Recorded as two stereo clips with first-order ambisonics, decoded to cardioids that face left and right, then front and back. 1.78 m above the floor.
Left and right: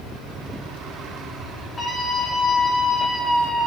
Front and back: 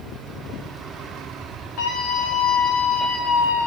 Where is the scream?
15° left, 3 m; by 3.7 s 20° right, 3 m.